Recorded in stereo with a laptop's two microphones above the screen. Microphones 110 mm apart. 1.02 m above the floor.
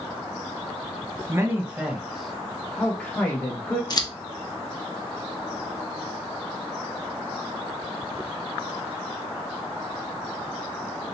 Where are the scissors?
40° left (ahead or behind), 0.7 m.